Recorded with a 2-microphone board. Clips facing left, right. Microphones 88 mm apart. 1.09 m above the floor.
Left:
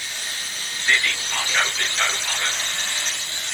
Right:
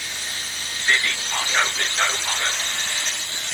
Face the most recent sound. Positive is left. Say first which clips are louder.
# even
turn(degrees=-25)  # may be behind; listen again after turning